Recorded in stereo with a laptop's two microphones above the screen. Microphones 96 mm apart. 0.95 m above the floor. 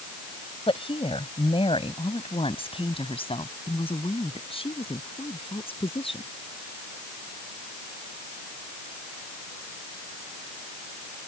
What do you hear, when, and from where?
0.7 s a woman speaking: 85° left